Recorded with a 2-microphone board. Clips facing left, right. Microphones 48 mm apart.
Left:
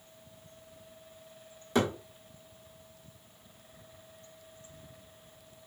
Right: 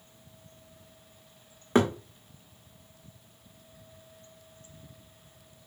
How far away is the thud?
About 1.5 m.